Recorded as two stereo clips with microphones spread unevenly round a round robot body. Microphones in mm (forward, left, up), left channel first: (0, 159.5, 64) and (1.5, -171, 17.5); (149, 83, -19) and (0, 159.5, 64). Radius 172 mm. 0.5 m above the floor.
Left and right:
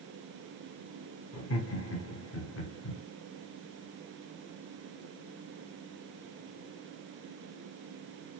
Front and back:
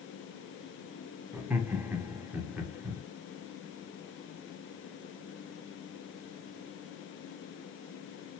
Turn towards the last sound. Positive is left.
turn(degrees=45)